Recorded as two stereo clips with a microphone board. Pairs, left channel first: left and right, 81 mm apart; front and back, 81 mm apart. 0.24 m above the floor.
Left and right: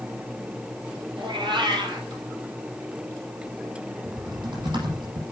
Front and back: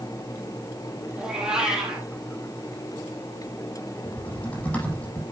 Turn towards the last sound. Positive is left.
turn(degrees=-70)